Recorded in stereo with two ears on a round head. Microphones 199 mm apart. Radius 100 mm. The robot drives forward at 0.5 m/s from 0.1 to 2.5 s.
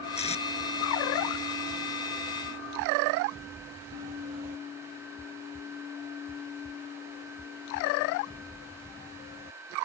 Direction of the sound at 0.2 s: 30° left (ahead or behind).